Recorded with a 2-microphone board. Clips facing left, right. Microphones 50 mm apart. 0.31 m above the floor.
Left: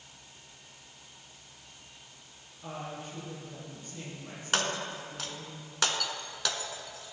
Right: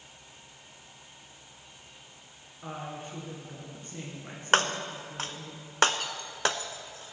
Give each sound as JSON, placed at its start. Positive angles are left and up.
{"t": 2.6, "sound": "a woman speaking", "side_deg": -45, "distance_m": 4.0}
{"t": 4.5, "sound": "breaking glass", "side_deg": -45, "distance_m": 0.5}